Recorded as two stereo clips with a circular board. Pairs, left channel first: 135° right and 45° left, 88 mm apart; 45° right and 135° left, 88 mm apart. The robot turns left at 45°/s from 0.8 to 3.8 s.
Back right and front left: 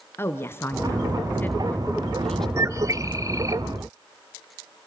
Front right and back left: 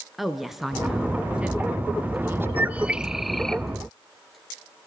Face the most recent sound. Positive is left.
turn(degrees=25)